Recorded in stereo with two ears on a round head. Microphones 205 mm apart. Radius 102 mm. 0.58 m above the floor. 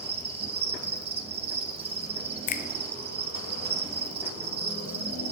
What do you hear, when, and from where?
0.0 s an insect: 25° right (ahead or behind), 1.2 m
2.5 s a finger snap: 35° left (ahead or behind), 0.6 m